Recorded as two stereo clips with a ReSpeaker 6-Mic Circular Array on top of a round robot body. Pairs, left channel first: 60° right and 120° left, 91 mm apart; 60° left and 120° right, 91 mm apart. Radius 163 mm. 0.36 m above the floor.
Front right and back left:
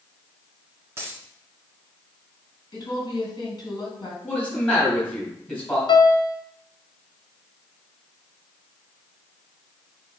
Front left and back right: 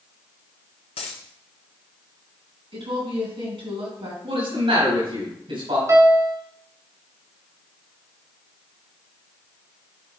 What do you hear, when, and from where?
1.0 s a dropped coin: 55° left, 1.3 m
2.7 s a woman speaking: 105° right, 4 m
4.2 s a man speaking: 135° right, 4.5 m
5.9 s a piano: 70° right, 1.4 m